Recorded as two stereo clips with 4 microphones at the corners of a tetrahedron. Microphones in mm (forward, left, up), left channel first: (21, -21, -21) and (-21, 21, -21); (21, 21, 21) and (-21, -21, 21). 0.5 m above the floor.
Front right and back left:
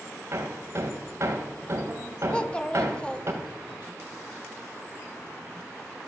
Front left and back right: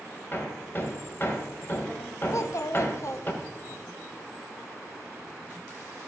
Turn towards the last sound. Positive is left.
turn(degrees=30)